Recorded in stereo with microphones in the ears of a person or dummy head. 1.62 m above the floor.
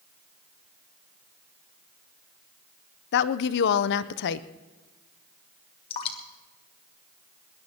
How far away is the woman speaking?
About 0.6 m.